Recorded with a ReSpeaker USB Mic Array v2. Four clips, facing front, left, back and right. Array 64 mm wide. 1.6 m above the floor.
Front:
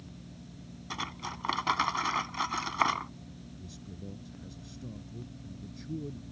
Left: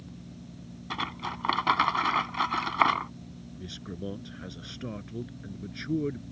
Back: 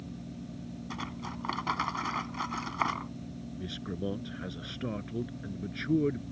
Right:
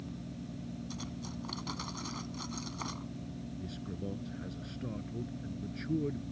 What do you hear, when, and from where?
0.9 s cutlery clinking: 80° left
3.6 s a man speaking: 160° left